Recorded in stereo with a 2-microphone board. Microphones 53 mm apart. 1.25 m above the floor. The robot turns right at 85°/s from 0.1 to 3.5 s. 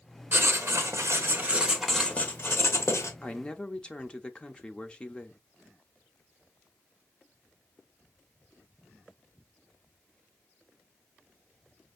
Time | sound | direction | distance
0.3 | writing | 135° right | 0.9 m
3.2 | a man speaking | 25° left (ahead or behind) | 0.6 m